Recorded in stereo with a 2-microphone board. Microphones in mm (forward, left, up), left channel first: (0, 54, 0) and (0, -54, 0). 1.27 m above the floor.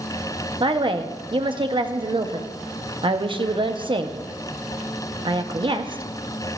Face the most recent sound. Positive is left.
turn(degrees=-50)  # may be behind; listen again after turning